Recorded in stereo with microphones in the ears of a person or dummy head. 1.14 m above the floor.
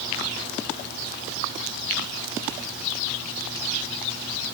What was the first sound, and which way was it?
Only background noise.